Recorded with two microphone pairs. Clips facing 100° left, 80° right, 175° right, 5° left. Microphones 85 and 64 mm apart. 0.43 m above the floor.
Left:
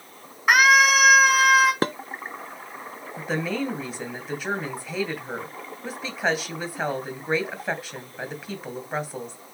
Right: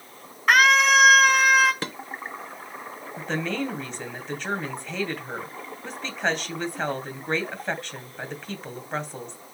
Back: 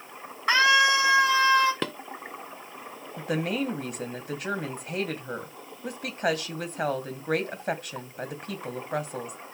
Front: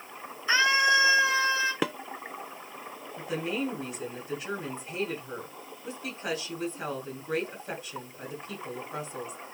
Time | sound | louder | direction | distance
0.5 | a scream | left 1 dB, back 3 dB | straight behind | 4.5 m
1.8 | dishes clattering | left 8 dB, front 2 dB | 80° left | 0.7 m
3.2 | a woman speaking | left 1 dB, back 3 dB | 175° right | 2.5 m